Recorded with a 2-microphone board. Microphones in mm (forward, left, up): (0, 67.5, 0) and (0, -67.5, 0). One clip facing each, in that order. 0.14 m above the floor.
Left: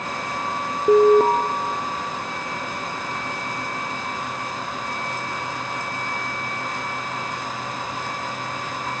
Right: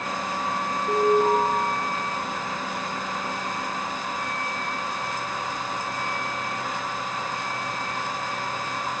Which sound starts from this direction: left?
An alarm, at 0.9 s.